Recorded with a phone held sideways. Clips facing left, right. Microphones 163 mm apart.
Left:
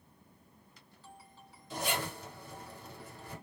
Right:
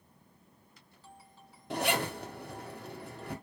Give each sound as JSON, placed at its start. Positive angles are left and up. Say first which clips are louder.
{"t": 1.7, "sound": "a zipper", "louder": "right 5 dB", "side_deg": -65, "distance_m": 0.6}